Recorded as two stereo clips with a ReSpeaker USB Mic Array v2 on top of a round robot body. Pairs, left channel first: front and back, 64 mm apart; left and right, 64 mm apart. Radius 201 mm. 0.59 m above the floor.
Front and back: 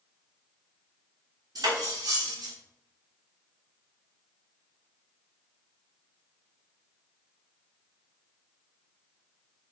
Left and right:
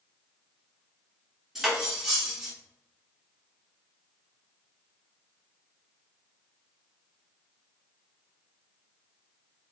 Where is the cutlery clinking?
175° right, 1.1 m.